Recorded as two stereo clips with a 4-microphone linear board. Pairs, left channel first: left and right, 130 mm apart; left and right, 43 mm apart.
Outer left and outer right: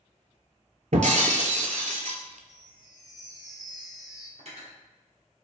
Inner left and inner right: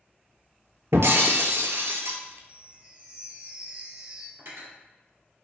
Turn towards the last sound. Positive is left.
turn(degrees=-60)  # may be behind; listen again after turning